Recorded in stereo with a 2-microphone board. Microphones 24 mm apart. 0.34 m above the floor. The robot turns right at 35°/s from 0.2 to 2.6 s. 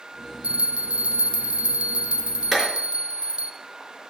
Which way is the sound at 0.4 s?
120° right.